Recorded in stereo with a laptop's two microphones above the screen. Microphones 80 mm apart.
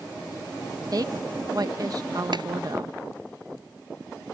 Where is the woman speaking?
50° right (ahead or behind).